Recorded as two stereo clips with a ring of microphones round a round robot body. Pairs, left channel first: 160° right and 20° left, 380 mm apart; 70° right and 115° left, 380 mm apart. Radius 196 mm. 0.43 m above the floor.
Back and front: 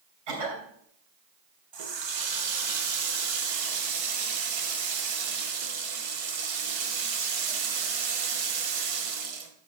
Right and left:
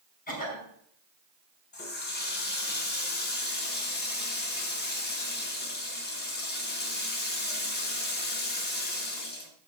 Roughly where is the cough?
Ahead.